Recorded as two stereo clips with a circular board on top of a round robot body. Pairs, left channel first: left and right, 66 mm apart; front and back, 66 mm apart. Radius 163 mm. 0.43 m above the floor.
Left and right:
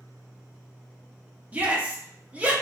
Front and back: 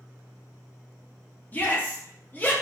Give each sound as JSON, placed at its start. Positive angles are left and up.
{"t": 1.5, "sound": "a shout", "azimuth_deg": -40, "distance_m": 0.9}